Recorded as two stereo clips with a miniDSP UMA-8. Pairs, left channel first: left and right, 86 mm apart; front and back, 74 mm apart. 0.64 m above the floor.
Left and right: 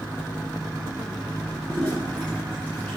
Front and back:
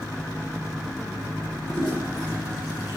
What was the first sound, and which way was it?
A toilet flushing, 15° left.